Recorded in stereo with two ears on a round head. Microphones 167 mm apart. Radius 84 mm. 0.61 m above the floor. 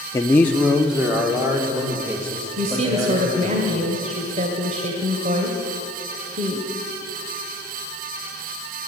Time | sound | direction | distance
0.1 | a man speaking | 15° left (ahead or behind) | 1.0 m
2.6 | a woman speaking | 40° right (ahead or behind) | 2.5 m